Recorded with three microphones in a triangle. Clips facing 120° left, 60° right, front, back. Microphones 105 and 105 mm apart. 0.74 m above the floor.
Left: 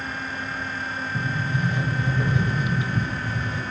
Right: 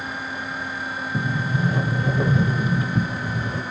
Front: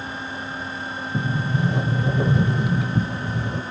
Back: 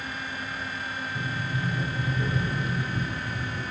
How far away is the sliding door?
About 1.2 m.